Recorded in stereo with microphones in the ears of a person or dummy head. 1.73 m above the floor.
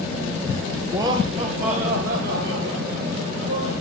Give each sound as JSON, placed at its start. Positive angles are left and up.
{"t": 0.9, "sound": "laughter", "side_deg": -10, "distance_m": 0.5}